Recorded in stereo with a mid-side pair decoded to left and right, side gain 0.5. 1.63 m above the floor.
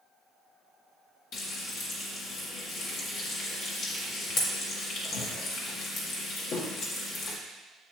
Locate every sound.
1.3 s frying: 70° left, 1.6 m